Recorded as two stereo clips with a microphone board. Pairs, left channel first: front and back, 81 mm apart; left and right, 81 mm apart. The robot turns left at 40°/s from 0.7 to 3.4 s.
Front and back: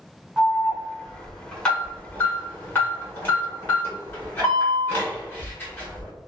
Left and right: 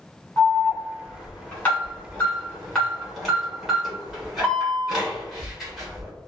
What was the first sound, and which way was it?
An alarm, 90° left.